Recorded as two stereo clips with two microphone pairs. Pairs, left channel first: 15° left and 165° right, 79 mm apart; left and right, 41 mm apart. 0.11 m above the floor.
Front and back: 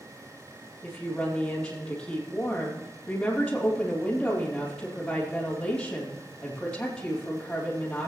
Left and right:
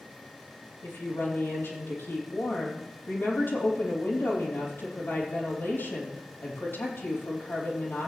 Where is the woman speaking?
90° left, 4.5 m.